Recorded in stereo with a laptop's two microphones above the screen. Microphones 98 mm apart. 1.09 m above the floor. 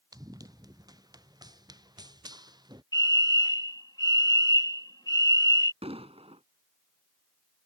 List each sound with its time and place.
0.1 s running footsteps: 40° right (ahead or behind); by 2.8 s 45° right (ahead or behind)
2.9 s a fire alarm: 45° left (ahead or behind)
5.8 s an explosion: 85° right